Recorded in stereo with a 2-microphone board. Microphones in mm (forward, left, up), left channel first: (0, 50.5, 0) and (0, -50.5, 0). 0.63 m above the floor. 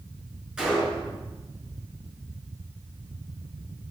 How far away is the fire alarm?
No fire alarm in this recording.